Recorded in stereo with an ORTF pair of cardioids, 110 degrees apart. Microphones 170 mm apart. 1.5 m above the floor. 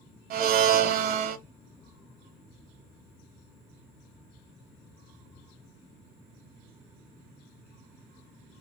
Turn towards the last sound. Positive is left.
turn(degrees=-65)